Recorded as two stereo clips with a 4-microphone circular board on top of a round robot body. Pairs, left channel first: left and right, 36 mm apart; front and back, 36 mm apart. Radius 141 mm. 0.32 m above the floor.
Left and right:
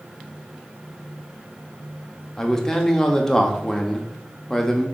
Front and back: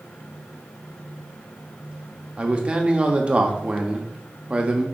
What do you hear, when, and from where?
2.4 s a man speaking: 155° left, 1.0 m